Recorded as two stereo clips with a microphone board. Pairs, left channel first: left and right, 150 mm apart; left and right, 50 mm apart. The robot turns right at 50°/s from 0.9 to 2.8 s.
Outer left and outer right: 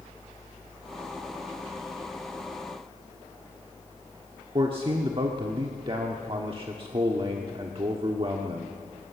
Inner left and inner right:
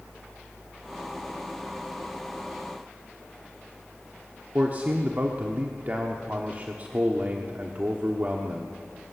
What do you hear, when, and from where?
4.5 s a man speaking: 40° right (ahead or behind), 1.1 m